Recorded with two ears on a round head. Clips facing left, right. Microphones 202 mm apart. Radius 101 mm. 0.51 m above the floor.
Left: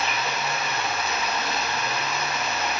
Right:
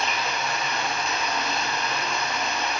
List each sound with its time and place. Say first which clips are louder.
0.0 s running water: even; 5° left (ahead or behind), 3.5 m